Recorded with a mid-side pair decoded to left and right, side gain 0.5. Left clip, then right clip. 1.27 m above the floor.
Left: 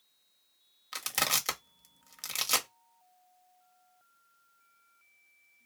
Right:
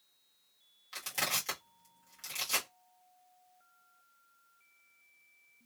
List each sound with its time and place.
0.9 s crushing: 55° left, 1.3 m